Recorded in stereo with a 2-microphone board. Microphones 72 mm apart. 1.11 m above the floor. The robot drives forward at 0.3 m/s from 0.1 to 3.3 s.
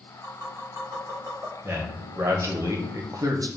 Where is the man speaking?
35° right (ahead or behind), 0.8 m; by 3.5 s 55° right (ahead or behind), 0.5 m.